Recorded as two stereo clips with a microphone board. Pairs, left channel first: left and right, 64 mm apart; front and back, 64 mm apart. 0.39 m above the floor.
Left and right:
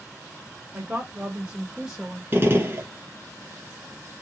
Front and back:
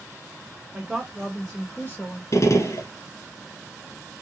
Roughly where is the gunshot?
Ahead right.